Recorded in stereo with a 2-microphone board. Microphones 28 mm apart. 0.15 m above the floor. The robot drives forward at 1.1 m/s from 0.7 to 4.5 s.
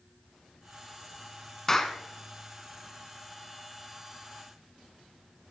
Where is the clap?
15° left (ahead or behind), 0.9 m.